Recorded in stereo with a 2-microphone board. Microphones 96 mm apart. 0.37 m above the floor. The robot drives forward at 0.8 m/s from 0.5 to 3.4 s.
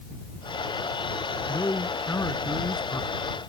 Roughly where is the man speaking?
Left.